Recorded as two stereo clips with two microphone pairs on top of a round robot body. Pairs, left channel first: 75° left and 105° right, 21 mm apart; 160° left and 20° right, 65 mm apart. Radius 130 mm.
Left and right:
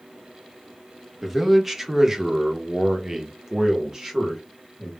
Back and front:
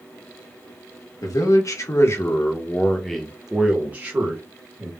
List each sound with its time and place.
1.2 s a man speaking: straight behind, 1.2 m; by 4.9 s 45° right, 1.5 m